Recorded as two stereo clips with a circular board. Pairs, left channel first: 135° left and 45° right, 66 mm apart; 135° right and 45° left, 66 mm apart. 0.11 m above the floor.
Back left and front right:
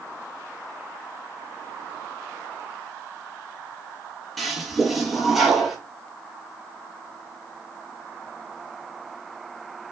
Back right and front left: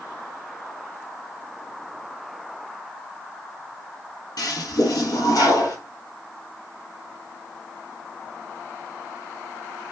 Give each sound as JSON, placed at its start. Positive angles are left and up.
{"t": 4.4, "sound": "a toilet flushing", "azimuth_deg": -135, "distance_m": 0.9}